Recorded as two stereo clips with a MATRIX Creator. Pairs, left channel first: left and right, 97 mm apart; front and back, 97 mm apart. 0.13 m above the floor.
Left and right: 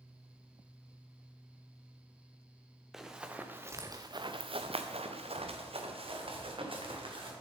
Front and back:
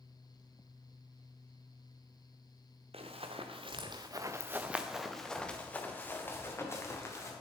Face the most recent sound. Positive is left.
turn(degrees=-60)